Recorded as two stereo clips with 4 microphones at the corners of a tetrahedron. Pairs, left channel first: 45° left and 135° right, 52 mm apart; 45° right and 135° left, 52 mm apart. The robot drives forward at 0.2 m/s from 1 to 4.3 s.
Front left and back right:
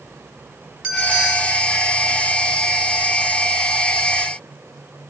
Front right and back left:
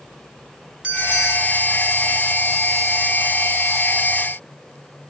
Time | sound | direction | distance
0.8 | a bell | 175° left | 1.0 m